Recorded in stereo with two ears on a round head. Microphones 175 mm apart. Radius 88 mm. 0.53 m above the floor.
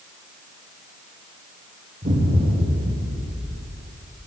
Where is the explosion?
35° right (ahead or behind), 1.6 m.